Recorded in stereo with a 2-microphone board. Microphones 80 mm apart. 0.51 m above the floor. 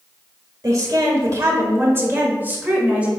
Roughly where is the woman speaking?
Right.